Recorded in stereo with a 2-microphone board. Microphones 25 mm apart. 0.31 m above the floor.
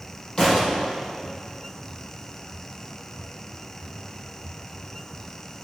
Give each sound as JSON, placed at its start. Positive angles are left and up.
{"t": 0.4, "sound": "a thud", "side_deg": 30, "distance_m": 3.5}